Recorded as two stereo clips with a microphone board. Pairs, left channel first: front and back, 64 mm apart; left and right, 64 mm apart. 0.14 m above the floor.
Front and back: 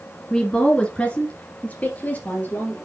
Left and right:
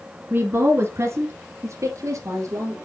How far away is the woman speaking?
About 1.6 m.